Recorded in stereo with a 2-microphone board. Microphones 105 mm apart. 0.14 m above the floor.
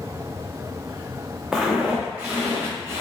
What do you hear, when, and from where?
1.5 s footsteps: 5° right (ahead or behind), 0.7 m; by 3.0 s 30° right (ahead or behind), 1.4 m